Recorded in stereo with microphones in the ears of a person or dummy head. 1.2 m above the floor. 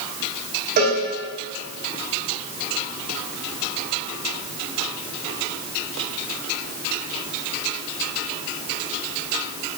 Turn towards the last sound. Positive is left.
turn(degrees=-55)  # may be behind; listen again after turning